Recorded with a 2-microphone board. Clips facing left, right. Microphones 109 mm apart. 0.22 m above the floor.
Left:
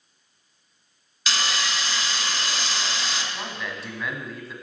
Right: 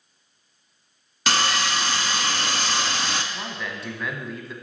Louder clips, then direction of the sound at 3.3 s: Even; centre (ahead or behind).